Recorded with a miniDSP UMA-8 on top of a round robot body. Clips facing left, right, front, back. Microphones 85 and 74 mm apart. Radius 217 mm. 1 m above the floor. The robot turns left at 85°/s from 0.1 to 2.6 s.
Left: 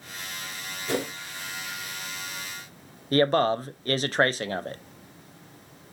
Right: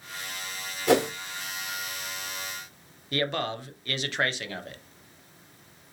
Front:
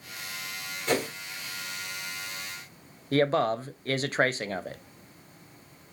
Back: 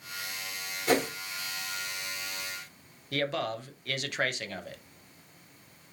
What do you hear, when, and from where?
0.9 s a whoosh: 100° right, 0.9 m; by 1.1 s 120° right, 0.9 m
3.1 s a man speaking: 50° left, 0.6 m